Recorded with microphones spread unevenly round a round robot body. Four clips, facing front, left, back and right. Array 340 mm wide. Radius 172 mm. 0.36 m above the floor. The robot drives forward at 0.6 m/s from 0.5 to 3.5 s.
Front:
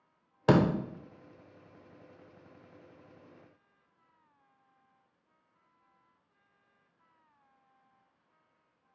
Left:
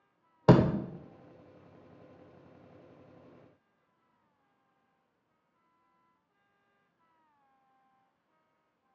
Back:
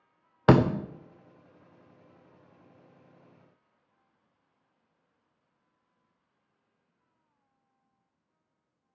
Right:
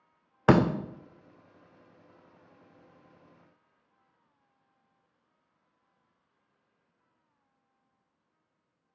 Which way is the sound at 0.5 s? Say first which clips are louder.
Right 1 dB, back 4 dB; 150° left.